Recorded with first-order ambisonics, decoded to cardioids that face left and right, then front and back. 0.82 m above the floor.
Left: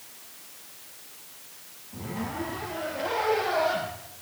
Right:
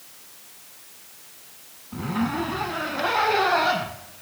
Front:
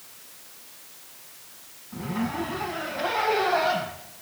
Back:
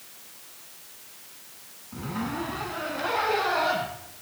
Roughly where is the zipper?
Right.